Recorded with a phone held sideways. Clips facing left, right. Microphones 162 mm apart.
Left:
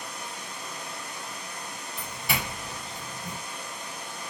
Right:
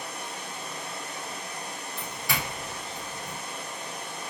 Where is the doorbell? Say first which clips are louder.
Left 1 dB; 20° left (ahead or behind), 1.6 m.